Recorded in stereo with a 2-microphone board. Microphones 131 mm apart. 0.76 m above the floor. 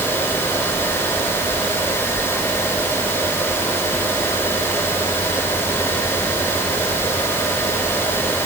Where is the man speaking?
I don't hear a man speaking.